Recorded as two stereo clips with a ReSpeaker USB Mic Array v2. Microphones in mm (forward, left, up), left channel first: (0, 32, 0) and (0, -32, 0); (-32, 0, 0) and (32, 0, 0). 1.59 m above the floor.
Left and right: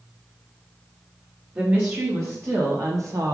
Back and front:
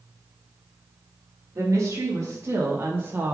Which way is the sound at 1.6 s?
40° right.